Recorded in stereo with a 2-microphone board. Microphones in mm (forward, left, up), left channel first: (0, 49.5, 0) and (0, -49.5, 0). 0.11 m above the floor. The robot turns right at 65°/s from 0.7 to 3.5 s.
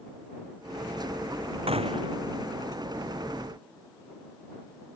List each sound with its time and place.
1.7 s a gunshot: 100° right; by 2.2 s 65° right